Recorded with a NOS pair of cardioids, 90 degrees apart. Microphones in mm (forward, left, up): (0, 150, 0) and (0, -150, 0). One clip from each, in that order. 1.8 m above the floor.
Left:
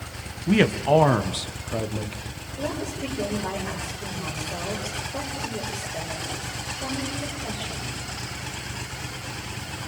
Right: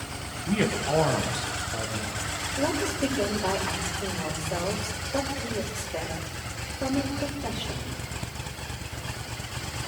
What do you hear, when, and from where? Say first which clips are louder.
0.5 s a man speaking: left 6 dB; 50° left, 1.8 m
2.6 s a woman speaking: right 2 dB; 40° right, 8 m